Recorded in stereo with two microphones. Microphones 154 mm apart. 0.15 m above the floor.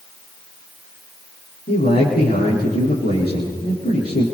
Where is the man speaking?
80° left, 6.5 m.